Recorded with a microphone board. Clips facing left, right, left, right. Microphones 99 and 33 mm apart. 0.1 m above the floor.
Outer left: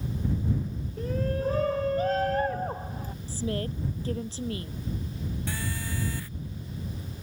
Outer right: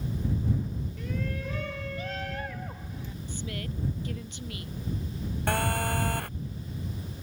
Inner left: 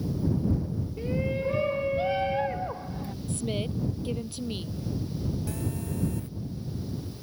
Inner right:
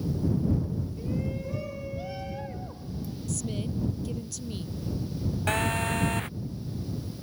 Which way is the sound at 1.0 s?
35° left (ahead or behind).